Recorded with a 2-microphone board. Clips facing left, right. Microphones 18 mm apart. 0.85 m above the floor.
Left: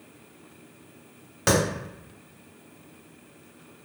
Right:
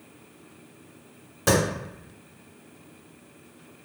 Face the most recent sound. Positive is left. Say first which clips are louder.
# right 1 dB
turn(degrees=40)  # may be behind; listen again after turning